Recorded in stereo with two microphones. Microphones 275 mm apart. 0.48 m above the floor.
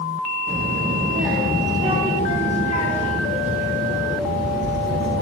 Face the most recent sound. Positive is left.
turn(degrees=-70)  # may be behind; listen again after turning